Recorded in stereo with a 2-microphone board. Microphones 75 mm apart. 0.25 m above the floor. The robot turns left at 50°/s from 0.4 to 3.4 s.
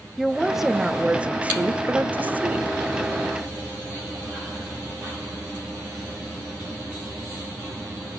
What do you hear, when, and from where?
0.2 s a woman speaking: centre (ahead or behind), 0.9 m; by 2.8 s 20° right (ahead or behind), 0.9 m